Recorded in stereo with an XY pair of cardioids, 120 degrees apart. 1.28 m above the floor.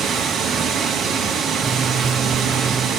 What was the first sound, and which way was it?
Running water, 70° right.